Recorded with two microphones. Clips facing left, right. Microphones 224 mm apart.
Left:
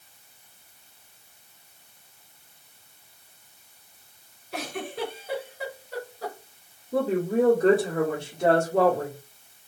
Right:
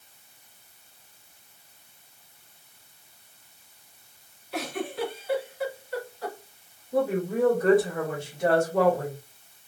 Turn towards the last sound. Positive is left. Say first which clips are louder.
# left 2 dB
turn(degrees=30)  # may be behind; listen again after turning